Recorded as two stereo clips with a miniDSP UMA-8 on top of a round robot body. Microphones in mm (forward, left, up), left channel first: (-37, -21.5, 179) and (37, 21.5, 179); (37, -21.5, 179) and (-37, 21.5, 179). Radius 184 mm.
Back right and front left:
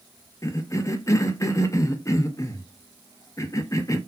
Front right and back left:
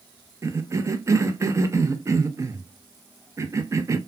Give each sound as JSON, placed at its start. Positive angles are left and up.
{"t": 0.4, "sound": "a cough", "azimuth_deg": 180, "distance_m": 0.7}